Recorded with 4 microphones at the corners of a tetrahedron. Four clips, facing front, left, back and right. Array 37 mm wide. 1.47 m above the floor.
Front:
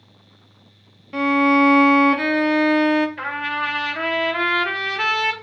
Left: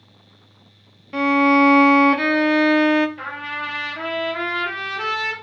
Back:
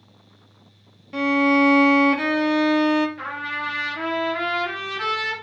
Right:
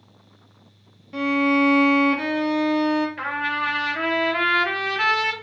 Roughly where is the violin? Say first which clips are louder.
Left 4 dB, front 2 dB; ahead left.